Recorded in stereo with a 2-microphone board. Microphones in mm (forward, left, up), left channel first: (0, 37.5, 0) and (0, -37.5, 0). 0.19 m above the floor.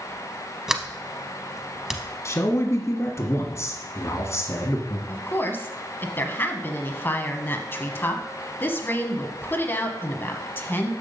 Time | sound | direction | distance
0.7 | a sliding door | 5° right (ahead or behind) | 0.7 m
2.2 | a man speaking | 40° left (ahead or behind) | 1.5 m
5.1 | a woman speaking | 30° left (ahead or behind) | 1.1 m